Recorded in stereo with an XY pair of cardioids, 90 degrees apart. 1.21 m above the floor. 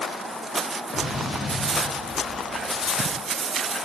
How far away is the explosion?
About 2.5 m.